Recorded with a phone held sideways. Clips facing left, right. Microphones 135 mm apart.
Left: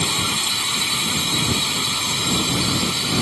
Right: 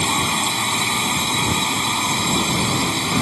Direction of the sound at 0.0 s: 50° right (ahead or behind).